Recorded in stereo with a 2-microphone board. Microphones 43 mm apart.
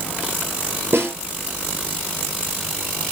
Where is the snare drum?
65° right (ahead or behind), 4 m.